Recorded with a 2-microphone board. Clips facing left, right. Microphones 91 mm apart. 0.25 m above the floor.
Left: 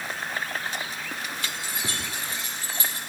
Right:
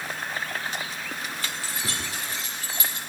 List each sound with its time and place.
1.4 s keys jangling: 20° left (ahead or behind), 7 m; by 3.0 s 35° left (ahead or behind), 6 m